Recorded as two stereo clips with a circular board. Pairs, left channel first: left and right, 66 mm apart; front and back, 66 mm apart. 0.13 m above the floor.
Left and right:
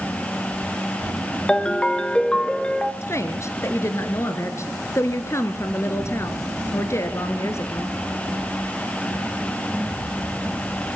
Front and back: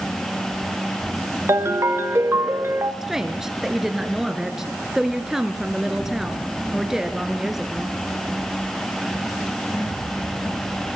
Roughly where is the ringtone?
Behind.